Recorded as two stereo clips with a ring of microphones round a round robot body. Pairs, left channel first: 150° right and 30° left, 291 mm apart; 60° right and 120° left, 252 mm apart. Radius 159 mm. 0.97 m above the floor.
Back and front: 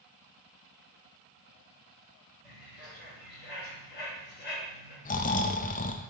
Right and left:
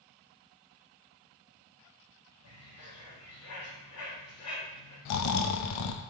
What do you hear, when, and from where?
2.4 s a bird: 90° right, 3.5 m
5.0 s snoring: 85° right, 0.5 m